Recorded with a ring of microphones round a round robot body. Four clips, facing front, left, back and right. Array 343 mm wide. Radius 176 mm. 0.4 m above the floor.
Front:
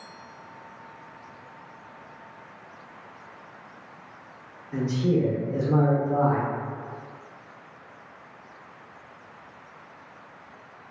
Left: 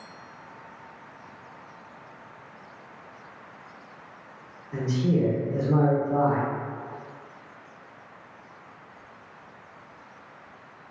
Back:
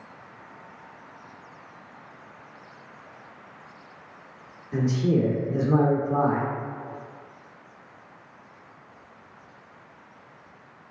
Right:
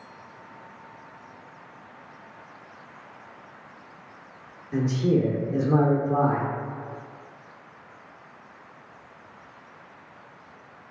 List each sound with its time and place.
4.7 s a man speaking: 135° right, 0.9 m